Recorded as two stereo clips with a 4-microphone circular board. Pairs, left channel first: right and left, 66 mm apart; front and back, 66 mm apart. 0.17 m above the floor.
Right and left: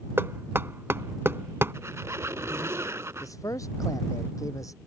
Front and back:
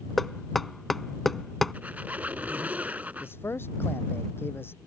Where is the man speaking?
55° right.